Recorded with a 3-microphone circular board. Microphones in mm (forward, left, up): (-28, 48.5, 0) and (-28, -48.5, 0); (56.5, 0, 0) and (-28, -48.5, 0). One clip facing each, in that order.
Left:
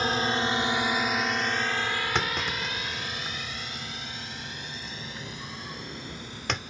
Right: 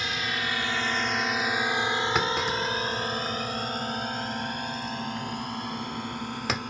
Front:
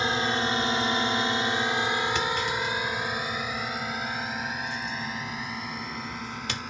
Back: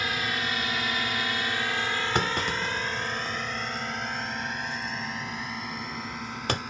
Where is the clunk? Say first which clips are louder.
Right 3 dB, even; 175° right.